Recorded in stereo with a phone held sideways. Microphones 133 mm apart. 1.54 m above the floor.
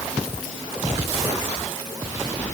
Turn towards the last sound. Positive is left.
No sound to turn to.